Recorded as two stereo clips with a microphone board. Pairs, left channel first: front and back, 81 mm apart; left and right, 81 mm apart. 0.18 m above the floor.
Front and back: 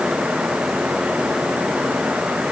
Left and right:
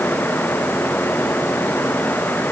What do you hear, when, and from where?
Only background noise.